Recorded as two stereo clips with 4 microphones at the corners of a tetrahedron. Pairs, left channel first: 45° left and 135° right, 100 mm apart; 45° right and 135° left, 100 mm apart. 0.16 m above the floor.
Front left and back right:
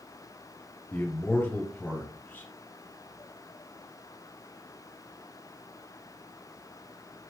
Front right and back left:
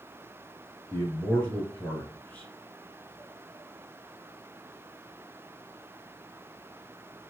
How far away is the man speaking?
About 1.7 m.